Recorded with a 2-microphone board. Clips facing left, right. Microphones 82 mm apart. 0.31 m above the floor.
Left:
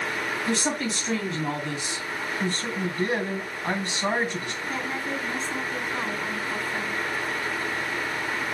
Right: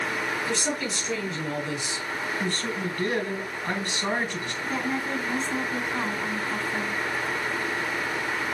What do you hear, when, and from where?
0.5 s a woman speaking: 50° left (ahead or behind), 2.5 m
2.4 s a man speaking: 25° left (ahead or behind), 2.5 m
4.6 s a woman speaking: centre (ahead or behind), 3 m